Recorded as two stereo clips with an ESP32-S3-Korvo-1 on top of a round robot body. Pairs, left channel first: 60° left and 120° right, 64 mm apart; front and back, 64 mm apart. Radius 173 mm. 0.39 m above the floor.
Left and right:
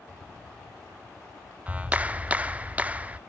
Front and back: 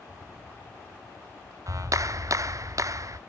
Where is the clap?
175° left, 0.7 m.